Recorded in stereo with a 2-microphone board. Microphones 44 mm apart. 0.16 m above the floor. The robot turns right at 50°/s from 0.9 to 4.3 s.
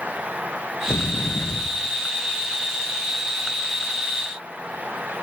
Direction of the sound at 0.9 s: 100° left.